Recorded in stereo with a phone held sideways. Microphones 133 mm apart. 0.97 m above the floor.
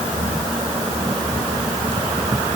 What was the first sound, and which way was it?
Only background noise.